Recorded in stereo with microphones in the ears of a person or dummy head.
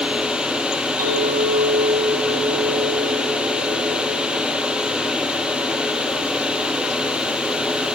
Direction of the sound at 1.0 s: 45° right (ahead or behind).